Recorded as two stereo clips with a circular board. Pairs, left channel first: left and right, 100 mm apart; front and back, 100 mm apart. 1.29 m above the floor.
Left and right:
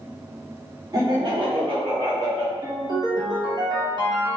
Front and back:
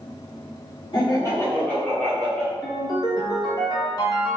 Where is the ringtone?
45° right, 0.8 m.